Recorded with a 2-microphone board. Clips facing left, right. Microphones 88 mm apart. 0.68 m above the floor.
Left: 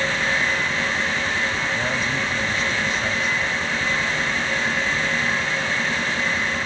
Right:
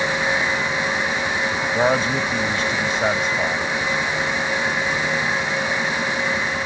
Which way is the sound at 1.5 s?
65° right (ahead or behind).